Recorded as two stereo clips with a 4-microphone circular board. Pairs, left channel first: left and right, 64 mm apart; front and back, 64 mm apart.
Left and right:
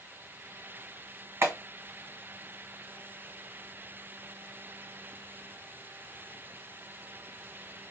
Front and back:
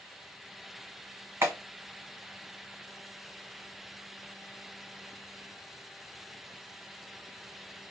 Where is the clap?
135° right, 1.5 m.